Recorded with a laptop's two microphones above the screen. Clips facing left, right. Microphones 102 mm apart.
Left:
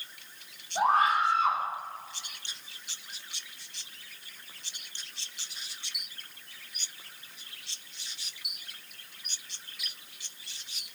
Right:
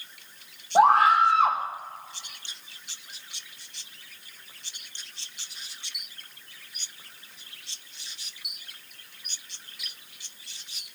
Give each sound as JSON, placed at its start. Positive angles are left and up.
{"t": 0.8, "sound": "a scream", "side_deg": -70, "distance_m": 1.7}